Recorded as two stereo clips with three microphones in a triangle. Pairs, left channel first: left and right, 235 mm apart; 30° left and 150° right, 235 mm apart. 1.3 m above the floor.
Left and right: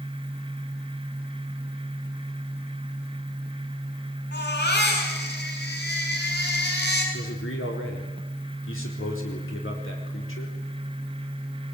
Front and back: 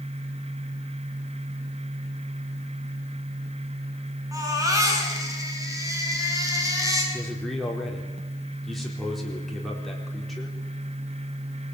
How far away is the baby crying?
About 6 m.